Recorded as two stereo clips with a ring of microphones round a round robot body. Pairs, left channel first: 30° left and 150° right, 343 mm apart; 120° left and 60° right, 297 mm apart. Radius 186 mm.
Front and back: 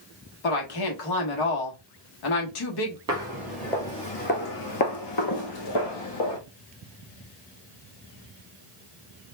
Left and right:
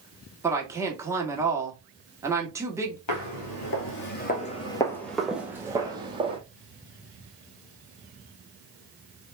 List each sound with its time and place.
0.4 s a woman speaking: 20° left, 1.5 m
3.1 s footsteps: 135° left, 1.1 m; by 6.4 s 10° left, 1.6 m